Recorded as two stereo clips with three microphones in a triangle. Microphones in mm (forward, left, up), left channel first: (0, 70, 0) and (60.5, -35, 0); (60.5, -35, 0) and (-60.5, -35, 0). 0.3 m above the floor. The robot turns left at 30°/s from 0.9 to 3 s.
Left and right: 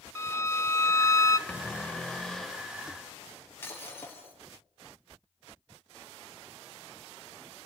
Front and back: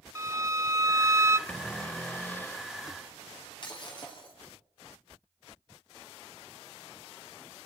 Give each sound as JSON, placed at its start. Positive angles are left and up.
{"t": 0.1, "sound": "a violin", "azimuth_deg": 155, "distance_m": 0.6}
{"t": 1.5, "sound": "a cupboard door", "azimuth_deg": 65, "distance_m": 0.9}
{"t": 3.6, "sound": "breaking glass", "azimuth_deg": 50, "distance_m": 5.5}